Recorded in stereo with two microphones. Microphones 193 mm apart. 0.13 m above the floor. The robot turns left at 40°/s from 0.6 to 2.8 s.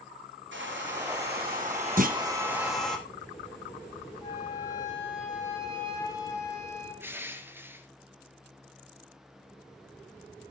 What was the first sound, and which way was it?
A hair dryer, 95° right.